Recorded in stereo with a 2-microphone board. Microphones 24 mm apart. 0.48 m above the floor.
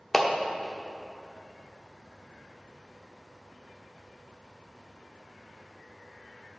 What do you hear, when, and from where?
0.1 s a clap: 10° left (ahead or behind), 0.6 m